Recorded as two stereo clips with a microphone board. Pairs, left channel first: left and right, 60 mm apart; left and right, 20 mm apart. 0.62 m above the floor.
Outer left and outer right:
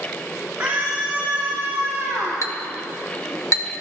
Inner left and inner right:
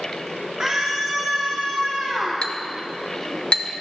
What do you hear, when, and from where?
0.6 s a scream: 25° right (ahead or behind), 3 m; by 2.4 s 10° right (ahead or behind), 5 m
2.4 s a clink: 55° left (ahead or behind), 1.2 m